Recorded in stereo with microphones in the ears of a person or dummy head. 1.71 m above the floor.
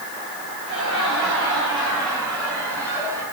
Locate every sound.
0.7 s laughter: centre (ahead or behind), 5.5 m; by 3.2 s 5° left (ahead or behind), 7 m